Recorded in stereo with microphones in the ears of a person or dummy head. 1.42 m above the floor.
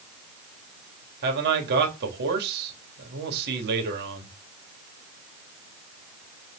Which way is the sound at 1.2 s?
55° right (ahead or behind).